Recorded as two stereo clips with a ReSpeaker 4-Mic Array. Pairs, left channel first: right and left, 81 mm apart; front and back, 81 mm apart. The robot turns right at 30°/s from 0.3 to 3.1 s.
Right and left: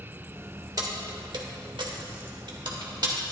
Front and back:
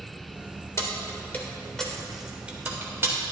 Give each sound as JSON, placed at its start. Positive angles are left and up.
{"t": 0.8, "sound": "keys jangling", "azimuth_deg": 55, "distance_m": 1.3}